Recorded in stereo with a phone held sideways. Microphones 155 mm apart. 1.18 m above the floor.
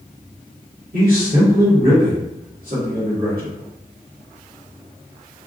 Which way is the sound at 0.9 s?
75° right (ahead or behind).